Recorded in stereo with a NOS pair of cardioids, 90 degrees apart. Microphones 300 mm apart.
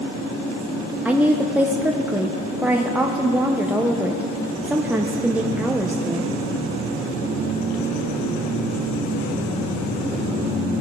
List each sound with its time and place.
1.1 s a woman speaking: 5° right, 0.8 m